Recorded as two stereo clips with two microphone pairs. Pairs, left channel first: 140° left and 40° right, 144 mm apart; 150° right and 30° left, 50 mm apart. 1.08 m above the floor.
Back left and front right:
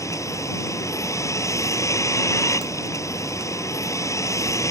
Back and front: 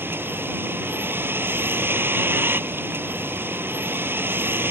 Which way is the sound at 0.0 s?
70° left.